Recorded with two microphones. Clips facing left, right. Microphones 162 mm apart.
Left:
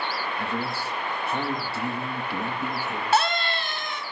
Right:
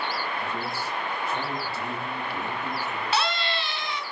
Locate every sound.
0.4 s a man speaking: 60° left (ahead or behind), 4.5 m
3.1 s a scream: 45° left (ahead or behind), 2.5 m